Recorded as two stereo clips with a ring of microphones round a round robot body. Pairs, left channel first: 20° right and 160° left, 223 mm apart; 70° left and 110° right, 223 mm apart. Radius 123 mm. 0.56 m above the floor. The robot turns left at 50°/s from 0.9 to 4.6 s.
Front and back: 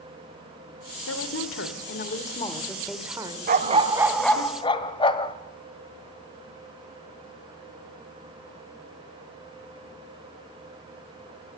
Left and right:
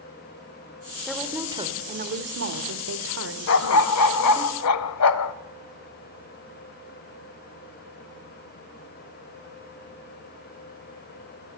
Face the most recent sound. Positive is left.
turn(degrees=50)